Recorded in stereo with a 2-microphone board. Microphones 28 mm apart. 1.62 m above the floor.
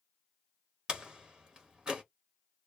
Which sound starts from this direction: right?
A door slam, at 0.9 s.